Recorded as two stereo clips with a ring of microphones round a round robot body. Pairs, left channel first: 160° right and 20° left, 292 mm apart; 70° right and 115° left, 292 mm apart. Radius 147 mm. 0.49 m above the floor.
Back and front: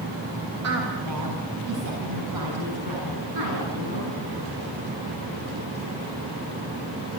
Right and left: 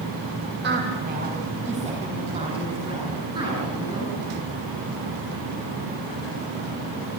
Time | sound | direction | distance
0.6 | a woman speaking | 60° left | 3 m